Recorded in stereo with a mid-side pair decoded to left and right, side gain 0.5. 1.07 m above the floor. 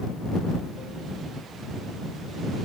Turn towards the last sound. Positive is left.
No sound to turn to.